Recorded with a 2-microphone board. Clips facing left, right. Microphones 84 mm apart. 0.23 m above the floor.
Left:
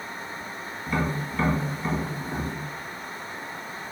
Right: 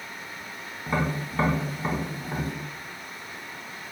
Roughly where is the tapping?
Right.